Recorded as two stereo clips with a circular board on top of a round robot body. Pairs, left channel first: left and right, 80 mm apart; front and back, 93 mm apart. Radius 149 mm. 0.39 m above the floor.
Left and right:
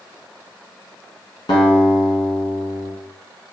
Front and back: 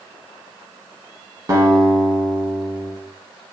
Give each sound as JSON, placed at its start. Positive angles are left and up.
{"t": 1.5, "sound": "a guitar", "azimuth_deg": 120, "distance_m": 1.0}